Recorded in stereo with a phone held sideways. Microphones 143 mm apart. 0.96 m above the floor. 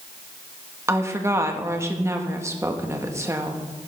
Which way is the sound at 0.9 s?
20° right (ahead or behind).